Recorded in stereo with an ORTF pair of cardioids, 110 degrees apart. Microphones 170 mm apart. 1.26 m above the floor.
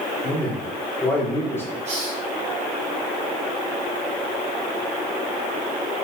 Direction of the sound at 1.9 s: 45° right.